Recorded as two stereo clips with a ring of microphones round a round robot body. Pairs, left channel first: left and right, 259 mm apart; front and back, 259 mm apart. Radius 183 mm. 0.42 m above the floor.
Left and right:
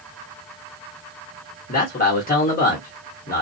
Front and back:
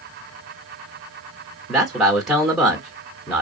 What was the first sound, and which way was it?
A man speaking, 95° left.